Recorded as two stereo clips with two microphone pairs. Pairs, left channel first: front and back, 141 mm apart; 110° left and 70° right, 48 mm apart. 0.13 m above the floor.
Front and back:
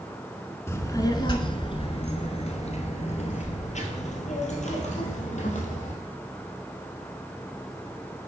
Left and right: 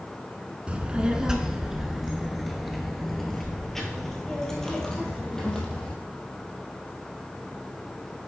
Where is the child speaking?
45° right, 0.9 m; by 5.9 s 30° left, 3 m.